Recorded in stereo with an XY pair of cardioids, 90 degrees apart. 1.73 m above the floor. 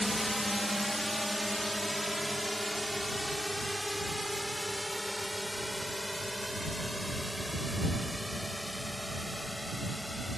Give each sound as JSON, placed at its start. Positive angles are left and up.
{"t": 0.0, "sound": "a drone", "azimuth_deg": 10}